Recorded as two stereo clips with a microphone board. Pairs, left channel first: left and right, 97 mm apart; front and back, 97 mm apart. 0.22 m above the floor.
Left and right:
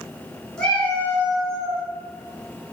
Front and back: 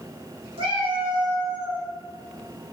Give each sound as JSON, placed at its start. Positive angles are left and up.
{"t": 0.6, "sound": "a cat meowing", "azimuth_deg": 170, "distance_m": 1.1}